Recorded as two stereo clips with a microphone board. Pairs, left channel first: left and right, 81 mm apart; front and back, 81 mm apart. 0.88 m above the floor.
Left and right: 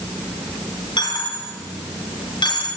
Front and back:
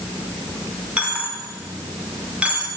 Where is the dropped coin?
105° left, 4 m.